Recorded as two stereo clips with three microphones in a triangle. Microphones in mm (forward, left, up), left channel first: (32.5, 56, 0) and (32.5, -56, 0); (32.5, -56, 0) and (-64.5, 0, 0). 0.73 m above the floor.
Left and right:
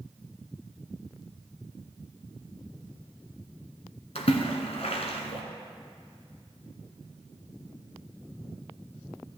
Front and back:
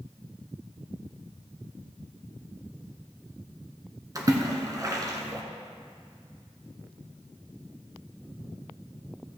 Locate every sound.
4.2 s a splash: 95° left, 1.4 m